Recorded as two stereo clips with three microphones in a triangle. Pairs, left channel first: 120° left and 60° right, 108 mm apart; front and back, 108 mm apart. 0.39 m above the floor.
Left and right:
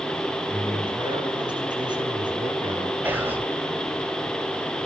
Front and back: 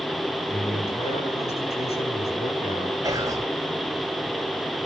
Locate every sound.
0.5 s a man speaking: 15° right, 8 m
3.0 s whispering: 130° right, 1.8 m